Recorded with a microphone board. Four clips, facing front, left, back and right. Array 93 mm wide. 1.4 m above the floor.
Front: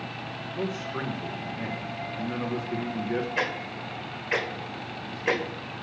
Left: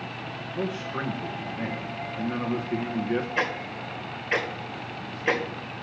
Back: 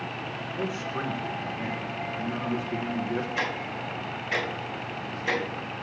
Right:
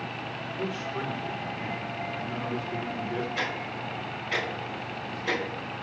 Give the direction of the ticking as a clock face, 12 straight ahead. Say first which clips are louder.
Left 3 dB, even; 10 o'clock.